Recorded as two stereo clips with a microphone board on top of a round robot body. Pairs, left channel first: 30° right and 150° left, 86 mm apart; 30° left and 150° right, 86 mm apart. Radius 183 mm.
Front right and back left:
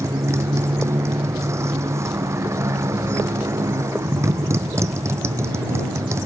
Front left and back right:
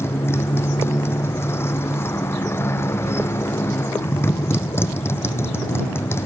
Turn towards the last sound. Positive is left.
turn(degrees=90)